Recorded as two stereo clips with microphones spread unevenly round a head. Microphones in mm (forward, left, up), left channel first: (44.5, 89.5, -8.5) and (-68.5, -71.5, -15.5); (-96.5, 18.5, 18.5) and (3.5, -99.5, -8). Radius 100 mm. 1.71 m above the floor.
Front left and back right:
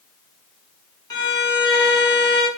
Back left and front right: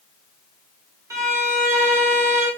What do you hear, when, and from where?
1.1 s a violin: 20° left, 1.5 m